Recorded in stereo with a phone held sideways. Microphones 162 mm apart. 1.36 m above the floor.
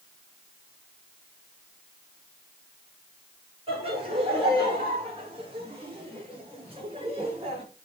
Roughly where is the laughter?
Right.